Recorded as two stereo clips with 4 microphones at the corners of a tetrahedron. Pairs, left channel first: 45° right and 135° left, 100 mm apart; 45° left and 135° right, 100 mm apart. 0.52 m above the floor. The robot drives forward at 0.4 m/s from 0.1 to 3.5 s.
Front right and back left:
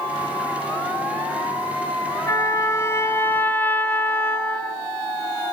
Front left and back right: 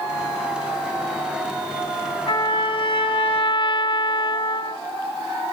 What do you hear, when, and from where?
2.3 s a trumpet: 10° left, 0.9 m; by 4.8 s 25° left, 0.5 m